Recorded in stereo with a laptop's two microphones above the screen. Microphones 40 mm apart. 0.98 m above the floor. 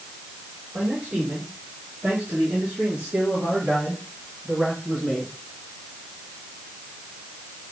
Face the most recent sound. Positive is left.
turn(degrees=10)  # may be behind; listen again after turning